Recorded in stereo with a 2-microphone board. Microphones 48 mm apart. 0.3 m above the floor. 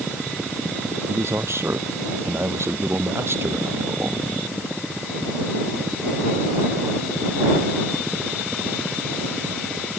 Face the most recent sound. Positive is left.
turn(degrees=-60)  # may be behind; listen again after turning